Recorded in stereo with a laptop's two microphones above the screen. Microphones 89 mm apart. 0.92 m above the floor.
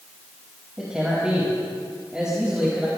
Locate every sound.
0.8 s a man speaking: 10° right (ahead or behind), 5 m